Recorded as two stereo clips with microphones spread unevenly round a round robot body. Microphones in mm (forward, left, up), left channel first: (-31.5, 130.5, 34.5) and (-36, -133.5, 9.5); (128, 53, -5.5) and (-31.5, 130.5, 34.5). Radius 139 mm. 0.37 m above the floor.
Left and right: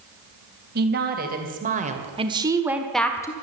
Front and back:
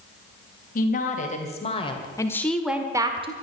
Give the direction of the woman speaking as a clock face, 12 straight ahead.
2 o'clock.